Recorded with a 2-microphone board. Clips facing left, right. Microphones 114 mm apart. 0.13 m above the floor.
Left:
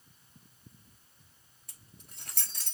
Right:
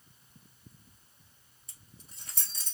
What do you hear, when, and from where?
1.7 s keys jangling: 60° left (ahead or behind), 1.7 m